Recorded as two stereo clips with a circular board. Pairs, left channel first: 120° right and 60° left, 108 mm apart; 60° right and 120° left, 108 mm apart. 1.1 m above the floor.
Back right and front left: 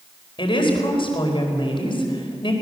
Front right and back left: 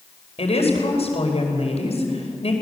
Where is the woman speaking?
80° right, 4.5 m.